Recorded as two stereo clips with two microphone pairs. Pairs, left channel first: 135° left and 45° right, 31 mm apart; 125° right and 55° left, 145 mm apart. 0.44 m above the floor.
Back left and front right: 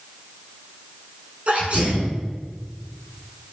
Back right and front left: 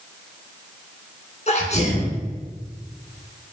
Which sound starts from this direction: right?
A sneeze, at 1.5 s.